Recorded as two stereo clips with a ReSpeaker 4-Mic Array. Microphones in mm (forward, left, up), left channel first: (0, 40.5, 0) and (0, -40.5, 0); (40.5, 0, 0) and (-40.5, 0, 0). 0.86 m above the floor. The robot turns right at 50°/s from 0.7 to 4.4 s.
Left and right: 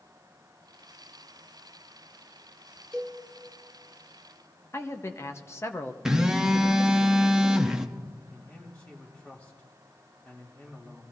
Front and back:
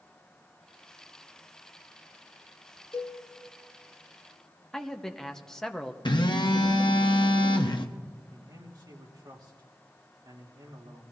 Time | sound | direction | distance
2.9 | a cowbell | 10° left | 3 m
4.7 | a man speaking | 80° left | 0.9 m
6.0 | a phone buzzing | 10° right | 0.9 m
8.3 | a man speaking | 160° left | 2.5 m